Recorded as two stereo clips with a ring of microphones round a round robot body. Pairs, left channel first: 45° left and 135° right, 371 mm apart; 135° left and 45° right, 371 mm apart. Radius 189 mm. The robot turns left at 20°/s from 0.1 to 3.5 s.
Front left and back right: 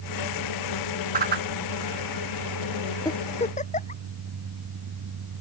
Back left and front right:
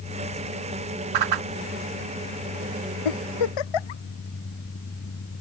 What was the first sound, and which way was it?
A whoosh, 65° right.